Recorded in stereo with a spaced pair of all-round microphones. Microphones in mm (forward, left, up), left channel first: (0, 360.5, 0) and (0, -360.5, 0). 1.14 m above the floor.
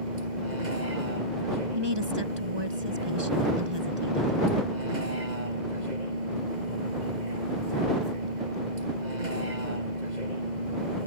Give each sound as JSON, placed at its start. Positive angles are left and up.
{"t": 0.0, "sound": "a vehicle", "side_deg": -75}
{"t": 1.8, "sound": "a woman speaking", "side_deg": -35}